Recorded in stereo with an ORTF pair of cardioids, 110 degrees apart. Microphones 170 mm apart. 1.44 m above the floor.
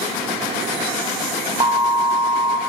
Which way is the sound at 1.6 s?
30° right.